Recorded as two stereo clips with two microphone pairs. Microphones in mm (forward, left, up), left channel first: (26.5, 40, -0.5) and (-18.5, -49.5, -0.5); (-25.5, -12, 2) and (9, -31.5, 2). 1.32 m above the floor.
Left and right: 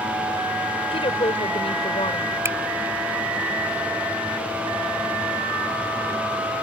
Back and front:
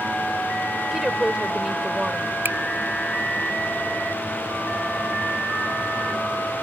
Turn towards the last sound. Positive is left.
turn(degrees=-55)